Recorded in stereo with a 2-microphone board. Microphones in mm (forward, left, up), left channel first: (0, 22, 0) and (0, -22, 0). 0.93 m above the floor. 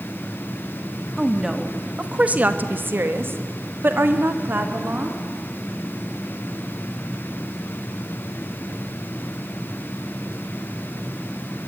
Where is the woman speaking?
10° right (ahead or behind), 2 m; by 5.2 s 50° right (ahead or behind), 3.5 m.